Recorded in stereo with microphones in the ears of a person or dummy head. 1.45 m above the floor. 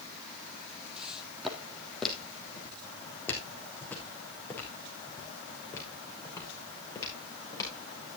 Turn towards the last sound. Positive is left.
turn(degrees=20)  # may be behind; listen again after turning